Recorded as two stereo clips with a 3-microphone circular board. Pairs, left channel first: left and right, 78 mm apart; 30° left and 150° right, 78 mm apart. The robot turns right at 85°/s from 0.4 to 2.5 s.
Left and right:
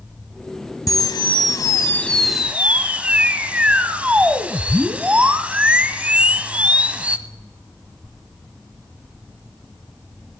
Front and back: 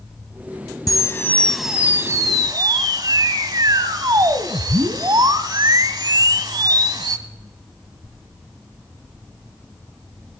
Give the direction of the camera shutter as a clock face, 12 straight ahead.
10 o'clock.